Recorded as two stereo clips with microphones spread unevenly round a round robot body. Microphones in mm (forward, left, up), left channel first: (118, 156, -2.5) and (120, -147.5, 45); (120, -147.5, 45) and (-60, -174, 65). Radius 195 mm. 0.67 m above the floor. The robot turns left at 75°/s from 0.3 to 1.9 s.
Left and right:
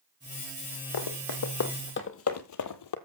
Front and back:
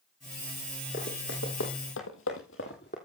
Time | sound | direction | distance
0.9 | running footsteps | 80° left | 2 m